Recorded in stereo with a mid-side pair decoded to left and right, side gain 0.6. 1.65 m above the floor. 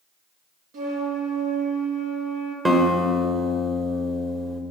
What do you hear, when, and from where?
0.7 s a flute: 65° right, 2.5 m
2.6 s a guitar: 20° right, 1.9 m